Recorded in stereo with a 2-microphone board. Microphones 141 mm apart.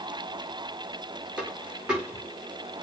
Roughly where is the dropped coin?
Centre.